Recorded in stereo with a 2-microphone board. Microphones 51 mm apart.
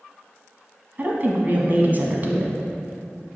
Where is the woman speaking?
40° right (ahead or behind), 1.2 m.